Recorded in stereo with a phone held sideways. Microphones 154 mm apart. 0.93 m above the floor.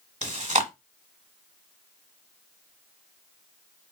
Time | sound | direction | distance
0.2 | chewing | 50° right (ahead or behind) | 1.1 m